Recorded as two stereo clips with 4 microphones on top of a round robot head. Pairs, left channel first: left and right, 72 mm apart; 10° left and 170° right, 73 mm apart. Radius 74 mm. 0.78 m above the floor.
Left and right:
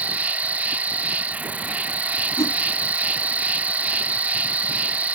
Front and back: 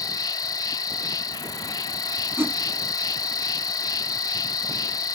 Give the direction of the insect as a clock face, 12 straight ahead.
1 o'clock.